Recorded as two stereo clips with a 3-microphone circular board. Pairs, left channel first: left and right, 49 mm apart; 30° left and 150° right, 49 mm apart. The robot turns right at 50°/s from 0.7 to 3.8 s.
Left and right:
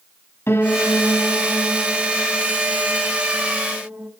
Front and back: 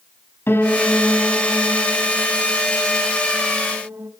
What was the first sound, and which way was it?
A piano, 60° left.